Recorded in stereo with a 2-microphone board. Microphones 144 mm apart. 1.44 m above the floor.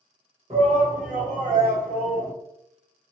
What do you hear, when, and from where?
0.5 s a shout: 45° right (ahead or behind), 1.2 m; by 2.3 s 60° right (ahead or behind), 0.8 m